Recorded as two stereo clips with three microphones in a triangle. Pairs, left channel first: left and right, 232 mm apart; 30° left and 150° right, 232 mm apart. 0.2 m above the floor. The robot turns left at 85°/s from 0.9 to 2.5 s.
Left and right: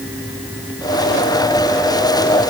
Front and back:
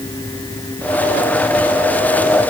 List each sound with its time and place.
Only background noise.